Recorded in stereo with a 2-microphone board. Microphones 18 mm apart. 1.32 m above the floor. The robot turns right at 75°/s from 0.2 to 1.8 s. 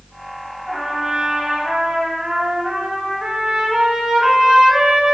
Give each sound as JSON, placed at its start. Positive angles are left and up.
{"t": 0.7, "sound": "a trumpet", "azimuth_deg": -160, "distance_m": 0.9}